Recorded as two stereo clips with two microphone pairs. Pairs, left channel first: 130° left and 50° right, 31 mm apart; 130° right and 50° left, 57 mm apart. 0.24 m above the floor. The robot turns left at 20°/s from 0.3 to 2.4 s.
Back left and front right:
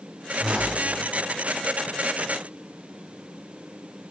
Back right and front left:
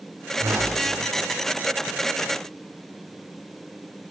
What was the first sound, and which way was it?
A whoosh, 15° left.